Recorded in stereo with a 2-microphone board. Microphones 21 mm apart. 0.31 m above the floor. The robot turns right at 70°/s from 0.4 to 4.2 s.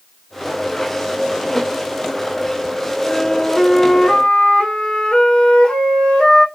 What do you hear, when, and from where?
3.0 s a flute: straight ahead, 1.1 m; by 6.5 s 80° left, 1.1 m